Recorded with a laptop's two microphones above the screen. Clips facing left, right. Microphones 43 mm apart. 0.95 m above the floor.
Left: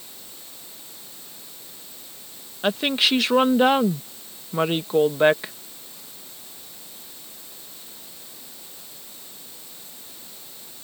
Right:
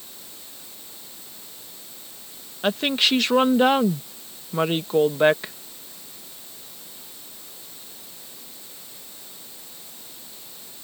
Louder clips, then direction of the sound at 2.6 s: Even; 5° left (ahead or behind).